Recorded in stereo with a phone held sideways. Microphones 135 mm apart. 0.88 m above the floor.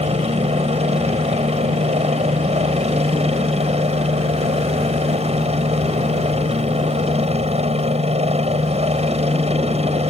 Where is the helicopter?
55° right (ahead or behind).